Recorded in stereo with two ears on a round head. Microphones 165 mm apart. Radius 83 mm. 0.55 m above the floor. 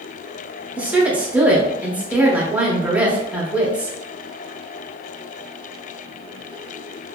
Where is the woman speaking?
10° right (ahead or behind), 0.6 m.